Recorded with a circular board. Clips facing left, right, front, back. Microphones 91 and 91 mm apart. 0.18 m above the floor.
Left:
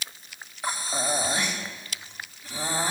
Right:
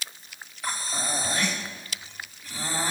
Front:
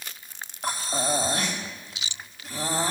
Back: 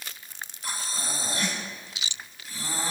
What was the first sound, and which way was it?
Breathing, 25° left.